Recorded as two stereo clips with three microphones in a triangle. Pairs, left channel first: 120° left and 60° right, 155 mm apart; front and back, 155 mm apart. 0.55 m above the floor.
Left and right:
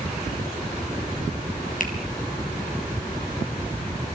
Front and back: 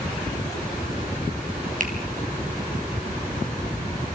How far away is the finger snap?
About 3.5 m.